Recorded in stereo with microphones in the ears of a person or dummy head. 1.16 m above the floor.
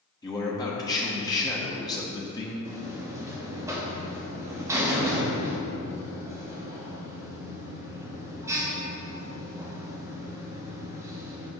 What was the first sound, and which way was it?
A man speaking, 15° left (ahead or behind).